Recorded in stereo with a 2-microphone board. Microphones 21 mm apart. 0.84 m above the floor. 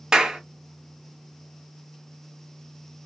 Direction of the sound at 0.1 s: 40° right (ahead or behind).